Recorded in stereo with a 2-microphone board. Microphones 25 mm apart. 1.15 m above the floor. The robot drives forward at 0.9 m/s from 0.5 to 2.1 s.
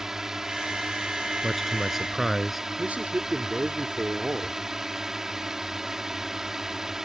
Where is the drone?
20° right (ahead or behind).